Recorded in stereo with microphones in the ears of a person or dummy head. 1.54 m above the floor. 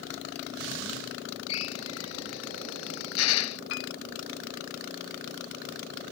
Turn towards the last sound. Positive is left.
turn(degrees=65)  # may be behind; listen again after turning